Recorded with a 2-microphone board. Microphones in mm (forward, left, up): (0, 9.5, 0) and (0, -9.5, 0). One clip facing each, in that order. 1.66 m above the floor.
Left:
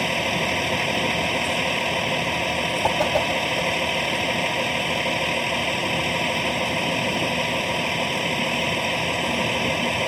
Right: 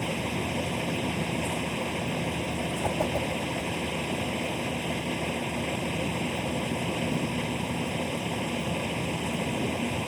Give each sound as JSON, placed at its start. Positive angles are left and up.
{"t": 0.0, "sound": "a vehicle", "side_deg": 75}
{"t": 2.8, "sound": "a whoosh", "side_deg": 70}